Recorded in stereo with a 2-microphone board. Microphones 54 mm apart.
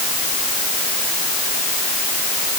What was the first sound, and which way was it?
Only background noise.